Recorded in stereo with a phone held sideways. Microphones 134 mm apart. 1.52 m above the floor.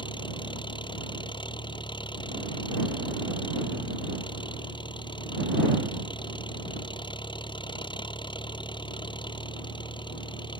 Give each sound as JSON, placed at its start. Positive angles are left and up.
{"t": 0.0, "sound": "an engine running", "side_deg": 35}